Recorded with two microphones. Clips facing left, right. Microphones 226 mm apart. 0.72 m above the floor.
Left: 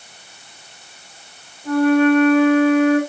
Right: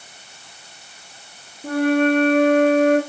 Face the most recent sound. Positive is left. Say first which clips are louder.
# left 3 dB
turn(degrees=-75)  # may be behind; listen again after turning